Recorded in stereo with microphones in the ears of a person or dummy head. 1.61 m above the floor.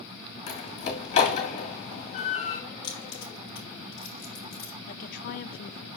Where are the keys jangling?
25° left (ahead or behind), 0.7 m.